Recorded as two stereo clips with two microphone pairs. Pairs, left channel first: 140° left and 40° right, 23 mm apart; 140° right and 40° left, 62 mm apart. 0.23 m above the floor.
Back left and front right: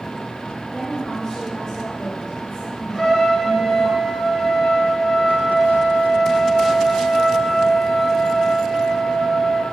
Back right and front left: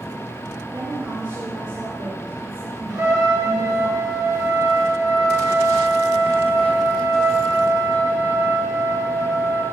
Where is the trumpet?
60° left, 4 m.